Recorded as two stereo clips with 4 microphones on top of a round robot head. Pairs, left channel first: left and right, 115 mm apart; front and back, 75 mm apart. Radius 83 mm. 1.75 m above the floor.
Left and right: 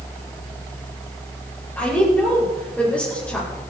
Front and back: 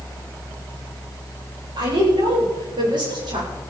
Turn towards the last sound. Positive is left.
turn(degrees=170)